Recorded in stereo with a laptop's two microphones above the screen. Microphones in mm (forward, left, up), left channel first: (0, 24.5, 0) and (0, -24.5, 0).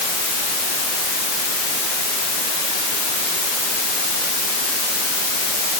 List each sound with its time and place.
Only background noise.